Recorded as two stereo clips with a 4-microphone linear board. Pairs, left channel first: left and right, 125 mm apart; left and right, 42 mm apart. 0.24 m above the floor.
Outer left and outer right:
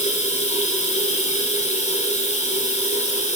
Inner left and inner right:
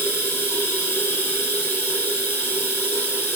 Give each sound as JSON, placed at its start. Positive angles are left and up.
{"t": 0.0, "sound": "running water", "side_deg": 70, "distance_m": 2.0}